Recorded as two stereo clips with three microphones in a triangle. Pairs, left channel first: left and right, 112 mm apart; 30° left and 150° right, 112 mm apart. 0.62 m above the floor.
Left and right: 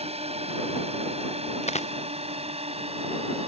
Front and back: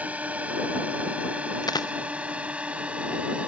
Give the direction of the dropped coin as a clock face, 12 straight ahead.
9 o'clock.